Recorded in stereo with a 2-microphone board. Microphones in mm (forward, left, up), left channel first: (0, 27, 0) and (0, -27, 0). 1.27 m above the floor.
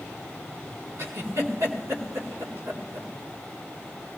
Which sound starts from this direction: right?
A giggle, at 1.0 s.